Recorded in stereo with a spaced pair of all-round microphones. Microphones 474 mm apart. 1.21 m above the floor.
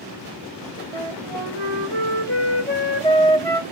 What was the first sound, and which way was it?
A flute, 75° right (ahead or behind).